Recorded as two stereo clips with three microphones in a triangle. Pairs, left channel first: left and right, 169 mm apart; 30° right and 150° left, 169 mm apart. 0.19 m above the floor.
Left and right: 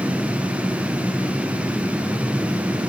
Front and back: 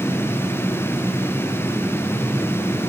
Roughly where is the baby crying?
I don't hear a baby crying.